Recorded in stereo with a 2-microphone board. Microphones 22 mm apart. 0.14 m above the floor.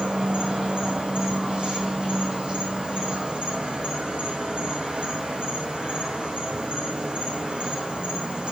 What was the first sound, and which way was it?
An insect, 50° right (ahead or behind).